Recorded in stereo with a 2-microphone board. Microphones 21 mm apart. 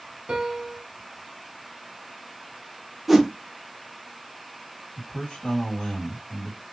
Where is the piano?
50° right (ahead or behind), 1.0 m.